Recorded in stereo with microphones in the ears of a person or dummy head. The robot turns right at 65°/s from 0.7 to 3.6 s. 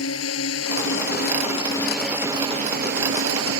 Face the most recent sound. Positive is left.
turn(degrees=-75)